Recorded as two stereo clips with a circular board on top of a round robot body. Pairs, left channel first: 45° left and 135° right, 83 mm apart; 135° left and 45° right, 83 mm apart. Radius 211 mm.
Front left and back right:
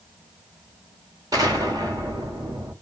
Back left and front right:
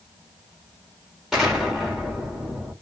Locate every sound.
1.3 s an explosion: 130° right, 1.8 m